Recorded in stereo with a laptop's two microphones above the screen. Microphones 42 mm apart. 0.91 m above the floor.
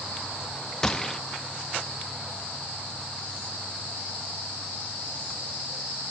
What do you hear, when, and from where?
0.8 s a gunshot: 10° left (ahead or behind), 0.5 m